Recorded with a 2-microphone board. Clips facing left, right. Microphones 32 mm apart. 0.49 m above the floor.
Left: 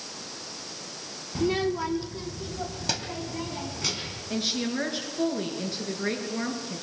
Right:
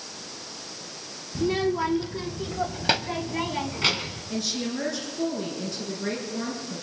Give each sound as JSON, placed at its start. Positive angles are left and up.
{"t": 1.4, "sound": "a child speaking", "side_deg": 20, "distance_m": 0.6}
{"t": 4.3, "sound": "a woman speaking", "side_deg": 35, "distance_m": 7.0}